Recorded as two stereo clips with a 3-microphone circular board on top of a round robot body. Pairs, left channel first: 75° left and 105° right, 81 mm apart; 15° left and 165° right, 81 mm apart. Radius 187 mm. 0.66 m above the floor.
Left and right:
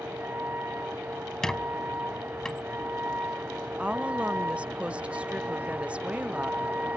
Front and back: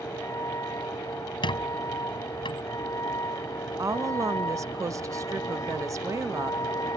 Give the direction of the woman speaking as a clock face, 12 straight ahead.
6 o'clock.